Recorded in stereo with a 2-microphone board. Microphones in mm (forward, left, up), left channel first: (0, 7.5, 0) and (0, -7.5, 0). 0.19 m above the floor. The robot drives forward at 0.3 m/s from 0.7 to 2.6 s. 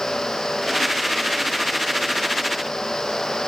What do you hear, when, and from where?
Only background noise.